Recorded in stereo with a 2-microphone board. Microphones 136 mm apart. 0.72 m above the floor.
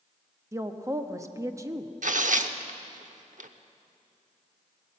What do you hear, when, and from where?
0.5 s a woman speaking: 25° right (ahead or behind), 0.8 m
2.0 s tearing paper: 70° right (ahead or behind), 0.7 m